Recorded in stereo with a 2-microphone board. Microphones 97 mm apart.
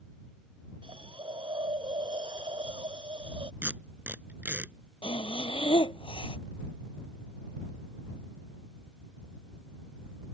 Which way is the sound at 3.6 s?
15° right (ahead or behind).